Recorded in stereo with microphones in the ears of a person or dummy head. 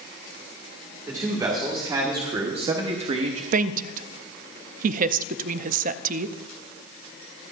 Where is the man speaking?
20° right (ahead or behind), 2 m; by 3.4 s 40° right (ahead or behind), 0.7 m.